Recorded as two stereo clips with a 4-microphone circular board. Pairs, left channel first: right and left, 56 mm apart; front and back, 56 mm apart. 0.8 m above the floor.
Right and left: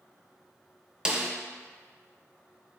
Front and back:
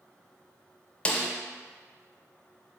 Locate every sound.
1.1 s a snare drum: 40° left, 0.5 m